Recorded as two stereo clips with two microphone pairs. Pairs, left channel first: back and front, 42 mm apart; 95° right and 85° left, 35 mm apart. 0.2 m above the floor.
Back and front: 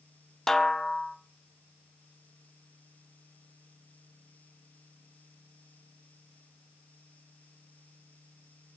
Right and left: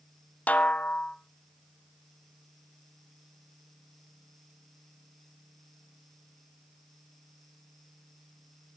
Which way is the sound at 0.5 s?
110° right.